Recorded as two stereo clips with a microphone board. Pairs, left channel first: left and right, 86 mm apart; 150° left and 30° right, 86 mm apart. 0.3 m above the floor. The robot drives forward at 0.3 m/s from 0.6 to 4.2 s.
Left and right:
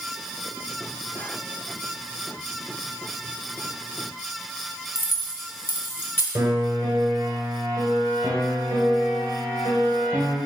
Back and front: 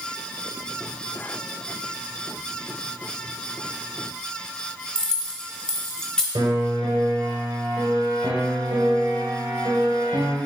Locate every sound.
5.0 s keys jangling: 85° left, 0.8 m
6.3 s a piano: 45° right, 1.4 m